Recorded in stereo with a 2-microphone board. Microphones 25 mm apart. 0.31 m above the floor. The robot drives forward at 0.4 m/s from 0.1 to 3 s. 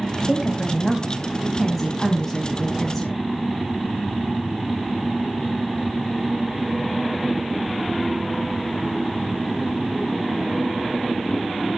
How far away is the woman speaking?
About 1.4 m.